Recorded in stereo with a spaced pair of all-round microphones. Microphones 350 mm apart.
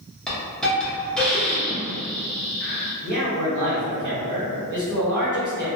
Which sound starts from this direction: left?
A man speaking, at 3.0 s.